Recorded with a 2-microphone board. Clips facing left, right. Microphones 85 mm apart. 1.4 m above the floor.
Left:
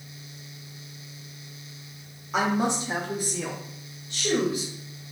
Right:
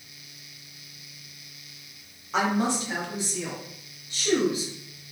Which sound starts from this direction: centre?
A woman speaking, at 2.3 s.